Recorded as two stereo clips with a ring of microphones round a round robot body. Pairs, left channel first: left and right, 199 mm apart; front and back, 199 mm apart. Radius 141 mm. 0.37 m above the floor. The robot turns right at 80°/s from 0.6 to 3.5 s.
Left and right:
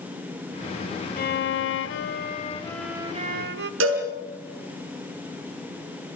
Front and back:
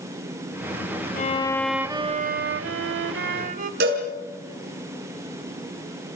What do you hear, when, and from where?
1.2 s a violin: 50° left, 0.9 m; by 3.7 s 125° right, 0.9 m
3.8 s a cowbell: 125° right, 5 m